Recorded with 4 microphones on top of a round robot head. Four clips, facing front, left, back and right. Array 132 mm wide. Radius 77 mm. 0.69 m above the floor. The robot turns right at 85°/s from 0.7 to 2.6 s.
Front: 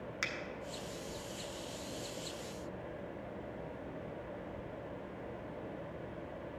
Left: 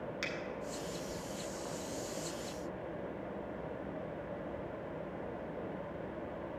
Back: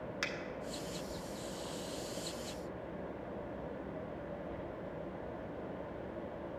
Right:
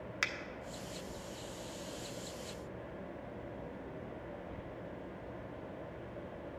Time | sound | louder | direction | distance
0.2 | a finger snap | right 4 dB, even | 90° right | 0.9 m